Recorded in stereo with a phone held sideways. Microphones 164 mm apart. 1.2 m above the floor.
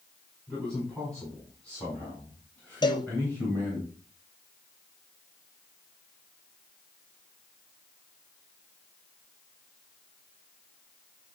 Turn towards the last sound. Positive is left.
turn(degrees=25)  # may be behind; listen again after turning